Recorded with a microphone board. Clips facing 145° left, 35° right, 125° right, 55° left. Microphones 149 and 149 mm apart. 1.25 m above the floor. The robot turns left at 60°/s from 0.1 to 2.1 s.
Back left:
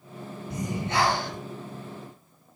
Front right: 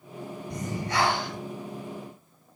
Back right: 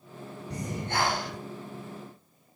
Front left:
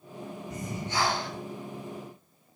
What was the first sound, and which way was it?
Breathing, 130° right.